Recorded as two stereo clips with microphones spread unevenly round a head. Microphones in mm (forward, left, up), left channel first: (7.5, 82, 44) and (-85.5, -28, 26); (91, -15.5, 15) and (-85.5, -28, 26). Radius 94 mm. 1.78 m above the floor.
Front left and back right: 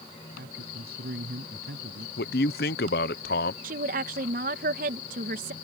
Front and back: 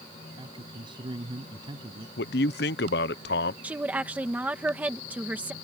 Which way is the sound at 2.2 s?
40° left.